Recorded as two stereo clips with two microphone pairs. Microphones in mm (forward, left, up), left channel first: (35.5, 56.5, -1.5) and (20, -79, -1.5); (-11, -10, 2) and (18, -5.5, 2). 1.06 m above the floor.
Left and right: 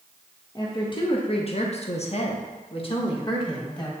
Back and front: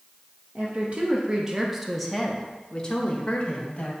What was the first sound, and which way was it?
A woman speaking, 25° left.